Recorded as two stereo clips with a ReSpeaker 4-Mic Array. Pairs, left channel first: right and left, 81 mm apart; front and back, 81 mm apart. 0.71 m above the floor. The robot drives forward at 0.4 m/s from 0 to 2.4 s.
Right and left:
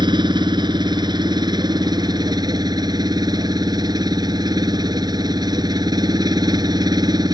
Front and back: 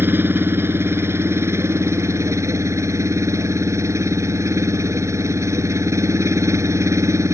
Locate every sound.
0.0 s an engine running: 115° left; by 7.3 s 125° left